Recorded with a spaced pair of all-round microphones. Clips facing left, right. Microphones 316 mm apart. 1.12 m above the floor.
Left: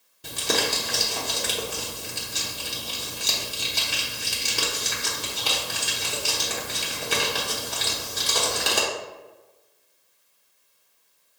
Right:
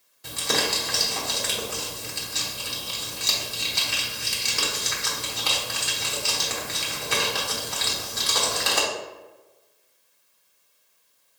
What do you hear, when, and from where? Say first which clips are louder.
0.2 s crumpling: left 1 dB; 40° left (ahead or behind), 1.0 m